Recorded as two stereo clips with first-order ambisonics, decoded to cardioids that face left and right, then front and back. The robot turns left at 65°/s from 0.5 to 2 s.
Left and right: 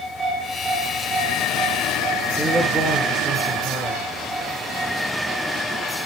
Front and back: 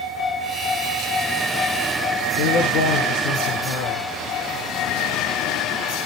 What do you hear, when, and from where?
2.4 s a man speaking: 5° left, 7.5 m